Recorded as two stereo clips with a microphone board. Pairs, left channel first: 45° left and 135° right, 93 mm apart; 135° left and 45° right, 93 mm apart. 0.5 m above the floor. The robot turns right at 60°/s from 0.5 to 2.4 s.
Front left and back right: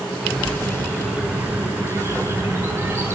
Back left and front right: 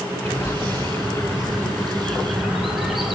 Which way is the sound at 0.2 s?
115° left.